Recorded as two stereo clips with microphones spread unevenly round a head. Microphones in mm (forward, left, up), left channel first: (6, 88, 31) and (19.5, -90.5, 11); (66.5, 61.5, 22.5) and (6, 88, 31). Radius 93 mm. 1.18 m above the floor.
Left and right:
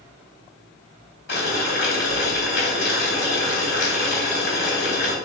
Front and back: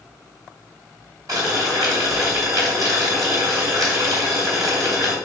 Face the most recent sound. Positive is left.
turn(degrees=130)